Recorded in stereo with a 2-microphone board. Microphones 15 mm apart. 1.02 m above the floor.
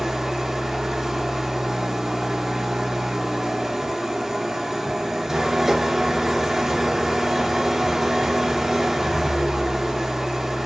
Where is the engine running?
35° right (ahead or behind), 0.9 m.